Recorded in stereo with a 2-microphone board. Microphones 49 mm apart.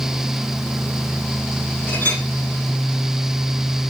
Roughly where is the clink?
Left.